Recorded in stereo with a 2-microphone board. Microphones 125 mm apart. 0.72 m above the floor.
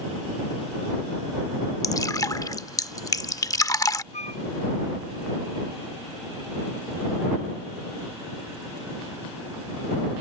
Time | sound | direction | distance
1.8 | dripping | 30° left (ahead or behind) | ?
4.1 | a flute | 75° left (ahead or behind) | ?